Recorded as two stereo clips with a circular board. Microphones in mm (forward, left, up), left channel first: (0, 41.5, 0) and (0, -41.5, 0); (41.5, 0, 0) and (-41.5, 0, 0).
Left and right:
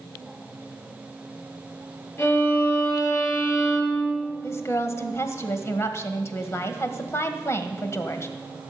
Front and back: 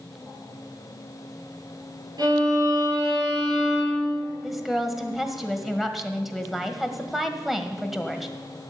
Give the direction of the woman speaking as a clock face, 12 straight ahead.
9 o'clock.